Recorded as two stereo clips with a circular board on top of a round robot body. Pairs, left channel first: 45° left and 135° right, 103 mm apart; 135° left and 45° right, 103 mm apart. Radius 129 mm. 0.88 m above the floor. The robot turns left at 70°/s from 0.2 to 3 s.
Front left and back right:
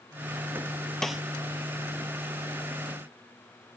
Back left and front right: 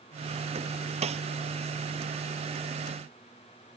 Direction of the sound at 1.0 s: 40° right.